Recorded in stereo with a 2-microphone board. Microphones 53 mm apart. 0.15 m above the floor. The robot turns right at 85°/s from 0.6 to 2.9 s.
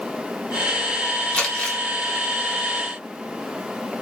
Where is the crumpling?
15° left (ahead or behind), 1.0 m; by 1.8 s 20° left (ahead or behind), 1.0 m.